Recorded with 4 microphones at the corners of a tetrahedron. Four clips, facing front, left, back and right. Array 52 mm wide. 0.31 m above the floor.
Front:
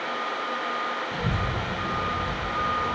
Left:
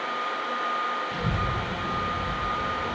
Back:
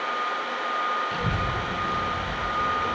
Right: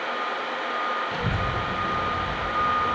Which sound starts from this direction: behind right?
A child speaking, at 1.1 s.